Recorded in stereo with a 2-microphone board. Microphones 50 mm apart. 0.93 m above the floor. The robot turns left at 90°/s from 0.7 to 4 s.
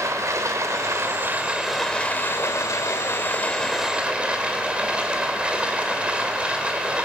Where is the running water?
85° right, 3 m; by 7.0 s 25° right, 3 m.